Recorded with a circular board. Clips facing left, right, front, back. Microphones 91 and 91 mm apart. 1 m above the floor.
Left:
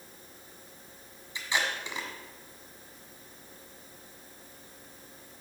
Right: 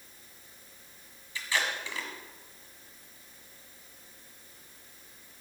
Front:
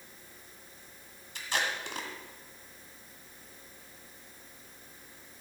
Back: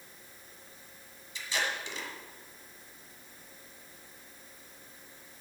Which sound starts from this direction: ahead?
Tape being pulled, at 1.4 s.